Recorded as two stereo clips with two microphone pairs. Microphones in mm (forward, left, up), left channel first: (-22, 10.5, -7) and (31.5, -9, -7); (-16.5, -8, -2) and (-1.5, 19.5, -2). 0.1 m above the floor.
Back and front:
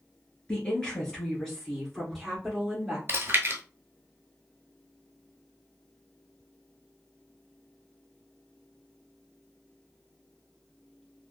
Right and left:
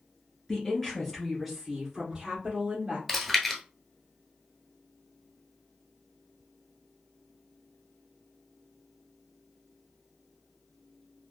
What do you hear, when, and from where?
0.5 s a woman speaking: 155° right, 1.5 m; by 3.0 s 60° left, 1.6 m
3.1 s chewing: 30° right, 0.8 m